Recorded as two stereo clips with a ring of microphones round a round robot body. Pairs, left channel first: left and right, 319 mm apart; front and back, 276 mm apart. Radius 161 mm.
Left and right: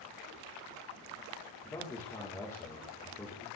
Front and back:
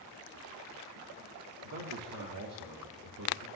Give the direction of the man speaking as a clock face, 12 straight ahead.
6 o'clock.